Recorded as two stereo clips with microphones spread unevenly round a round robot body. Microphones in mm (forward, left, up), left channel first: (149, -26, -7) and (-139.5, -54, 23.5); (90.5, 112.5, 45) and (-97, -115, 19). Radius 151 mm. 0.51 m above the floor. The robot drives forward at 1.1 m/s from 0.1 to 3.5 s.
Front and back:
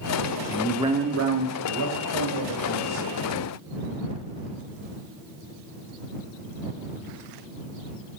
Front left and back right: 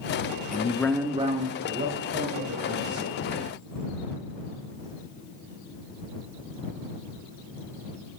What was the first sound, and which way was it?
A man speaking, 15° left.